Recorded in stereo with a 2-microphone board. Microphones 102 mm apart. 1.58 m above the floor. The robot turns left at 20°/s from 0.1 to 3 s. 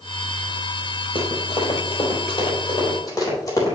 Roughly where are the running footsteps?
Left.